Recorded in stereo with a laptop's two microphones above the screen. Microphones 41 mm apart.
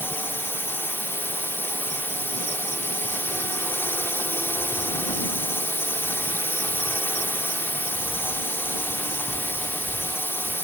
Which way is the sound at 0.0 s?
70° left (ahead or behind).